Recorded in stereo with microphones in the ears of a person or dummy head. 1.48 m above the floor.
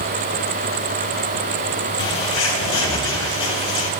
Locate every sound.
2.0 s a bird: 30° left (ahead or behind), 3.5 m